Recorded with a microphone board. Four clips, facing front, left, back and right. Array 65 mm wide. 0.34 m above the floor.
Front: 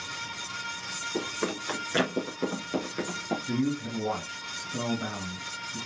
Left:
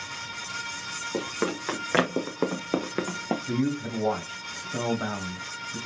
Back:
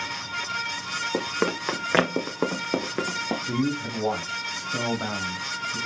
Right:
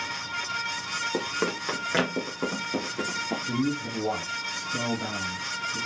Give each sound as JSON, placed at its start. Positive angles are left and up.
{"t": 1.1, "sound": "running footsteps", "azimuth_deg": -175, "distance_m": 1.6}
{"t": 3.5, "sound": "a man speaking", "azimuth_deg": 135, "distance_m": 1.7}